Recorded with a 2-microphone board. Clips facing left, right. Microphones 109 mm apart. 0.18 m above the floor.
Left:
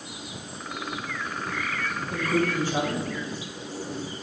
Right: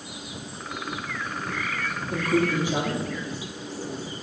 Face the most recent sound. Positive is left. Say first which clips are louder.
# right 2 dB
turn(degrees=-15)  # may be behind; listen again after turning